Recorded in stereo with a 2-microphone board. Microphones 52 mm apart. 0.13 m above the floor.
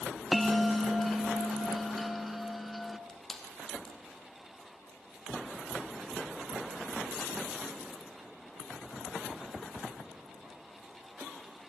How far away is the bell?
About 0.7 m.